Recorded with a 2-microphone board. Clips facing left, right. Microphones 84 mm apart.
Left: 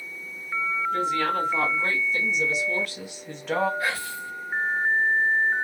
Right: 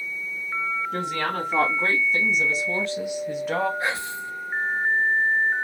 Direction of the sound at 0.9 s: 65° right (ahead or behind).